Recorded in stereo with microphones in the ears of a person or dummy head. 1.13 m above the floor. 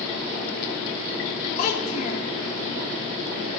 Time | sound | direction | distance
1.6 | a child speaking | 50° left (ahead or behind) | 3 m